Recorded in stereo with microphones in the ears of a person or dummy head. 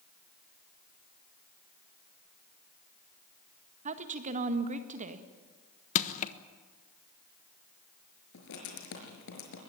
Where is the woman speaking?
45° right (ahead or behind), 1.8 m.